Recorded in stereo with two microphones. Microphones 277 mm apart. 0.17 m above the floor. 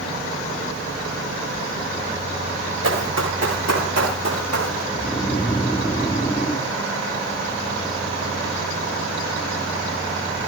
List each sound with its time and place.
2.8 s running footsteps: 65° right (ahead or behind), 9.5 m; by 4.8 s 75° right (ahead or behind), 10 m
4.9 s snoring: 10° left (ahead or behind), 3.5 m